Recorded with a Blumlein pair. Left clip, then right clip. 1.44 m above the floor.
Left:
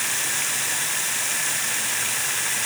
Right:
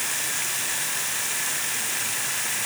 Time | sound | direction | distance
0.0 | running water | 10° left | ?